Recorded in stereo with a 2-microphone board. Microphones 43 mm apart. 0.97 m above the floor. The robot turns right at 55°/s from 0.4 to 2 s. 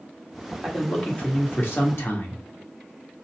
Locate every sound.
0.6 s a man speaking: 5° left, 1.5 m; by 2.4 s 80° left, 1.5 m